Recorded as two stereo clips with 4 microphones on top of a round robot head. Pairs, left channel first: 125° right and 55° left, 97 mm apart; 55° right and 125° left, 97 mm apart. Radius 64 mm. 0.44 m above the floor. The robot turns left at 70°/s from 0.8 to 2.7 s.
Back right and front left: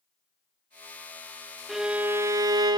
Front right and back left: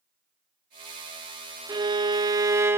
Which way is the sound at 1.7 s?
140° left.